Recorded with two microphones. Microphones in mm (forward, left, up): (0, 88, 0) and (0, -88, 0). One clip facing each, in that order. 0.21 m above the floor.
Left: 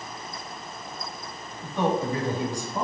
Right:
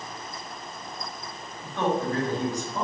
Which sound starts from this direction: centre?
A man speaking, at 1.6 s.